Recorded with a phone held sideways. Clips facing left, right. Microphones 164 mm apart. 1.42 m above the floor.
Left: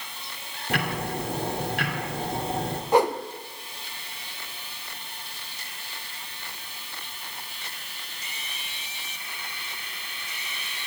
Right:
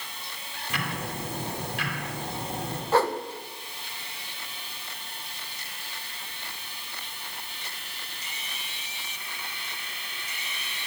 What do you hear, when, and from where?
0.7 s ticking: 60° left (ahead or behind), 2 m
2.9 s a whoosh: 15° left (ahead or behind), 0.8 m